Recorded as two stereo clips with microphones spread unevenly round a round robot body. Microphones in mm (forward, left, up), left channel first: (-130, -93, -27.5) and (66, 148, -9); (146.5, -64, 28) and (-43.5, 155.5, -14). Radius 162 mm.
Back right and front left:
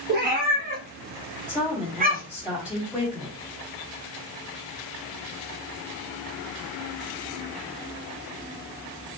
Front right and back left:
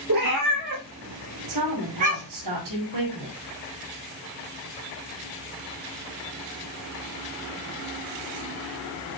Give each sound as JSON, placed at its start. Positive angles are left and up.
{"t": 0.1, "sound": "a cat meowing", "azimuth_deg": 105, "distance_m": 4.5}
{"t": 1.5, "sound": "a woman speaking", "azimuth_deg": 135, "distance_m": 4.5}